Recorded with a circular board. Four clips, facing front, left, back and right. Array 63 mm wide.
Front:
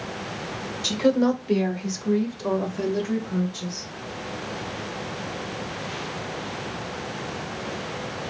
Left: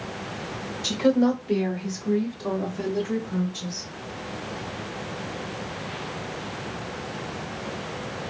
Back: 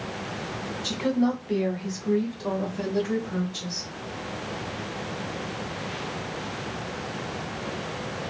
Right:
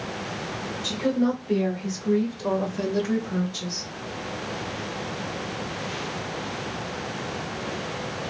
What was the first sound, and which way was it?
A woman speaking, 20° left.